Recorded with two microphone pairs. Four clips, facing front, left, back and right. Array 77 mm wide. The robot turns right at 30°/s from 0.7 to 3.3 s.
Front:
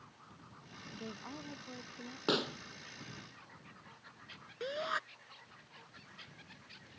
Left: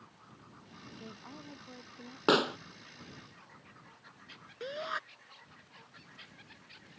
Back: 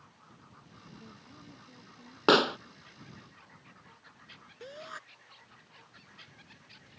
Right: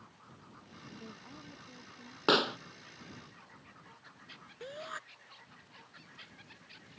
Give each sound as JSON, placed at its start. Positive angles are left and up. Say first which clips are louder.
{"t": 0.9, "sound": "a woman speaking", "louder": "left 2 dB, front 8 dB", "azimuth_deg": 0}
{"t": 2.3, "sound": "a pop", "louder": "left 1 dB, back 11 dB", "azimuth_deg": 165}
{"t": 4.6, "sound": "a shout", "louder": "left 6 dB, front 7 dB", "azimuth_deg": 35}